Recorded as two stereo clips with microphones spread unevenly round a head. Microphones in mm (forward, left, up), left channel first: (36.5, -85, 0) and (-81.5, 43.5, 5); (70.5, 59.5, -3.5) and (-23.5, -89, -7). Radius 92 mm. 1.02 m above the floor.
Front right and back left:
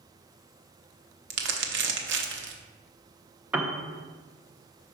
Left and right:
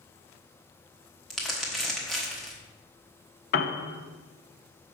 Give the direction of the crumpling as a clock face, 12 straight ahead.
7 o'clock.